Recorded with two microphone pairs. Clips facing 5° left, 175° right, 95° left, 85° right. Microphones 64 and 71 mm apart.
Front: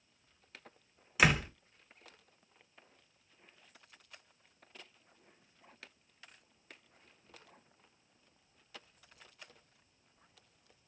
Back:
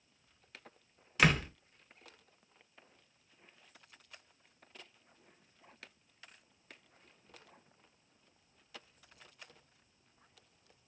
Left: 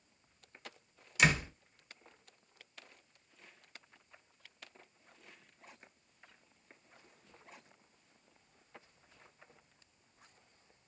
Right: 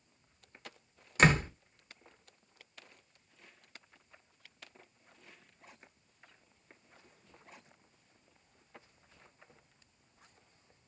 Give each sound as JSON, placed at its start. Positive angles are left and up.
{"t": 1.2, "sound": "a door slam", "azimuth_deg": -75, "distance_m": 0.7}